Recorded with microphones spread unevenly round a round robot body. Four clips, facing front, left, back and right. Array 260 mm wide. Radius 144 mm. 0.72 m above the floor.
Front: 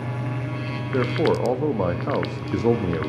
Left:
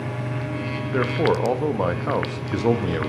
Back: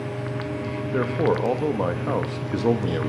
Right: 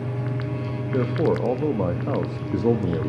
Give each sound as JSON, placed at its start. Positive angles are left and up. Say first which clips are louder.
{"t": 0.9, "sound": "a man speaking", "louder": "left 1 dB, front 1 dB", "azimuth_deg": -90, "distance_m": 0.6}